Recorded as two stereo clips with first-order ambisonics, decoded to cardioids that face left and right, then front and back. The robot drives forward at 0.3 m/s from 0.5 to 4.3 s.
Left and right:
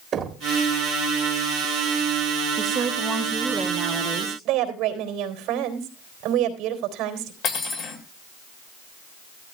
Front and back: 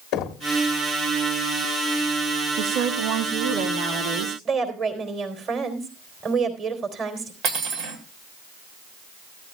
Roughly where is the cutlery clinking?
Behind left.